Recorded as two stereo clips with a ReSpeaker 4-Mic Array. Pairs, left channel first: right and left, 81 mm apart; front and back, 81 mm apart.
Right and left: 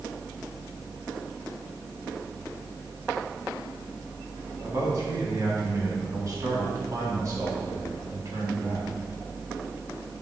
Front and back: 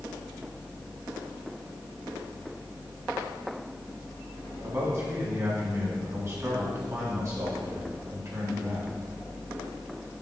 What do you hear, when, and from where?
4.6 s a man speaking: 130° left, 2 m